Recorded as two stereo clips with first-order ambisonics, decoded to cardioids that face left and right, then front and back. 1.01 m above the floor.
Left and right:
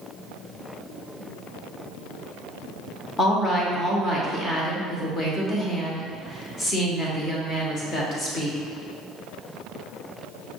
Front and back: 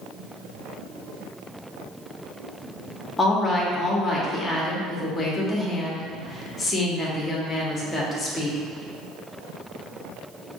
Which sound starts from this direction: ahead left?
A woman speaking, at 3.2 s.